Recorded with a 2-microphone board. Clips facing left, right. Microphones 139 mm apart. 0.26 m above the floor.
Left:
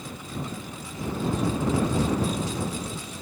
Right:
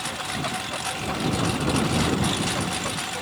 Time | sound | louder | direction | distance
0.0 | a lawn mower | right 5 dB | 85° right | ?